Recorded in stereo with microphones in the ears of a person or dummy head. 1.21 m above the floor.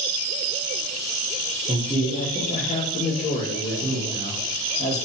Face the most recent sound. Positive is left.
turn(degrees=65)  # may be behind; listen again after turning